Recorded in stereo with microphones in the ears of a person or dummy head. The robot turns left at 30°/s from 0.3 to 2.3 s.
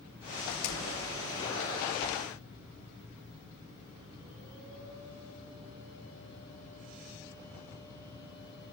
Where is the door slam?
85° left, 3 m; by 1.1 s 65° left (ahead or behind), 3 m.